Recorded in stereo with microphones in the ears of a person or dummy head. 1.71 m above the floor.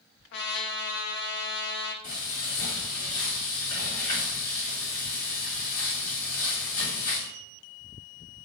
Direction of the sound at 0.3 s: 65° left (ahead or behind).